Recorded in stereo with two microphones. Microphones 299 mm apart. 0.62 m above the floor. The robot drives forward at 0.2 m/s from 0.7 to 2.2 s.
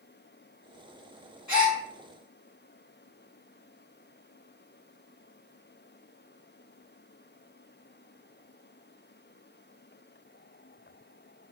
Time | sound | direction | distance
1.5 | a gasp | 65° left (ahead or behind) | 0.8 m